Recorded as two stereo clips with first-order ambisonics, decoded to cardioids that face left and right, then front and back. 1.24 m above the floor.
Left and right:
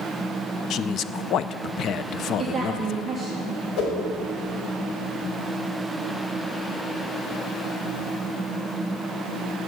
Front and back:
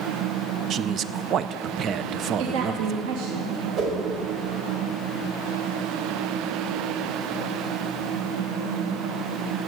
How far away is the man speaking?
About 0.5 m.